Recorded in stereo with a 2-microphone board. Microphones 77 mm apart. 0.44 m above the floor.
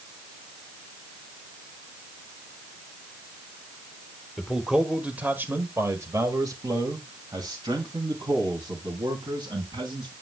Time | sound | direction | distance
4.4 | a man speaking | centre (ahead or behind) | 1.4 m